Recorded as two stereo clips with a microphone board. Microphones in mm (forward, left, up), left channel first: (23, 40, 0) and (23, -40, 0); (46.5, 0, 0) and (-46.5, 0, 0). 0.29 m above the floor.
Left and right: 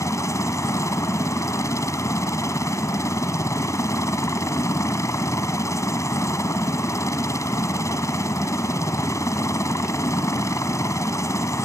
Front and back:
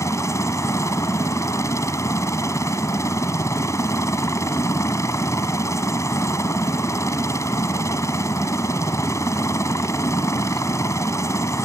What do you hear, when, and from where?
0.0 s a helicopter: 50° left